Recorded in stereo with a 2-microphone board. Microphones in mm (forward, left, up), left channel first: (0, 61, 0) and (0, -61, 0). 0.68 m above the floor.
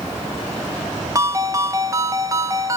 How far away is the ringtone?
About 0.6 m.